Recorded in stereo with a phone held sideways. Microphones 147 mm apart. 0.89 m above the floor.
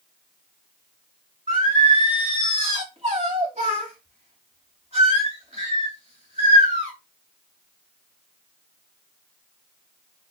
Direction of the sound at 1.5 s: 45° right (ahead or behind).